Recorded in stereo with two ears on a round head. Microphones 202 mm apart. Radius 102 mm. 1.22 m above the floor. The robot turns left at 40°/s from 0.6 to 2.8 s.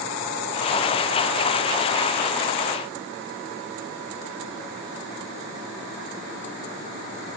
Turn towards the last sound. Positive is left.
No sound to turn to.